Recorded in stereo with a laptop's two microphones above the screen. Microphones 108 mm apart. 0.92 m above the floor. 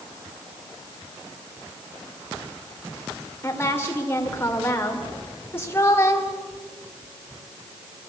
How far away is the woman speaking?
About 3 m.